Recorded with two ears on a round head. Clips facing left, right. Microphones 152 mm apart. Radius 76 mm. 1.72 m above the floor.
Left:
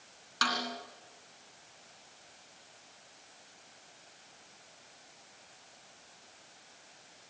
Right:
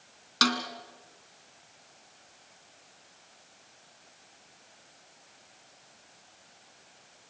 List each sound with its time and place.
0.4 s a snare drum: 50° right (ahead or behind), 2.5 m